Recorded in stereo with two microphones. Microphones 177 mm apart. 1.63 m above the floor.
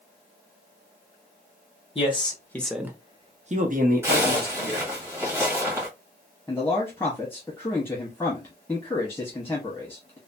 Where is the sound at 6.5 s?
15° left (ahead or behind), 0.9 m.